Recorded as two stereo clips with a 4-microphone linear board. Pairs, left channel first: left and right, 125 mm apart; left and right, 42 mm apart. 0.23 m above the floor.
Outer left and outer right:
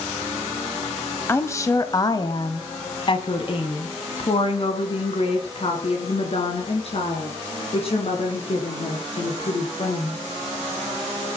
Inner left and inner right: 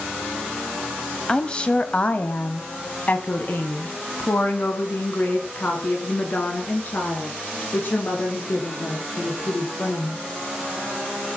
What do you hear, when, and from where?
1.3 s a woman speaking: 20° left (ahead or behind), 1.5 m; by 10.2 s 50° left (ahead or behind), 5.5 m